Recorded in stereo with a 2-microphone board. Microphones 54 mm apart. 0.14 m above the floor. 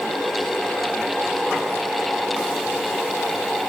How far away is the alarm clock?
I don't hear an alarm clock.